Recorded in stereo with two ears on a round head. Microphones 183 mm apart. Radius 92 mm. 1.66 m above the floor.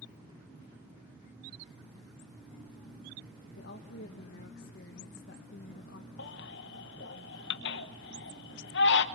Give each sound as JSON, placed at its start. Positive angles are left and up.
{"t": 3.6, "sound": "a woman speaking", "side_deg": 55, "distance_m": 1.4}
{"t": 6.2, "sound": "a baby crying", "side_deg": 55, "distance_m": 1.4}